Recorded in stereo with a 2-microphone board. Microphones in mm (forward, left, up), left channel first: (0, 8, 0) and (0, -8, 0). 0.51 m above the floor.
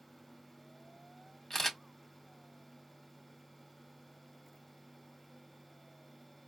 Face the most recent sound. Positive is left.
turn(degrees=25)  # may be behind; listen again after turning